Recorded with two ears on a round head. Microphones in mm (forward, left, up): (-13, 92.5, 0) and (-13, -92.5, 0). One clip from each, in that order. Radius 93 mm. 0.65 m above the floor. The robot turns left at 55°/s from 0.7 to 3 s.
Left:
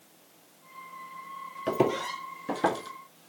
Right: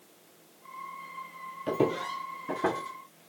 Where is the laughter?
No laughter in this recording.